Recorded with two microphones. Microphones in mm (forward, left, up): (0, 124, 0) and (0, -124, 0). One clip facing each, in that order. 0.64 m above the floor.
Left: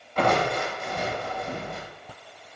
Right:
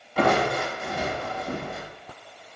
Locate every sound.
0.2 s crushing: 5° right (ahead or behind), 2 m